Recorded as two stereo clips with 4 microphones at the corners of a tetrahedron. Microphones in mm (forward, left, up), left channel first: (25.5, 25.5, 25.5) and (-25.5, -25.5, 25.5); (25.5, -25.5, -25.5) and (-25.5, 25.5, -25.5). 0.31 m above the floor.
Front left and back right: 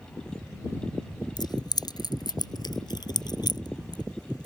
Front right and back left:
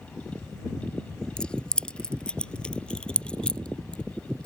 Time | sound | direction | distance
1.4 | keys jangling | 30° left | ?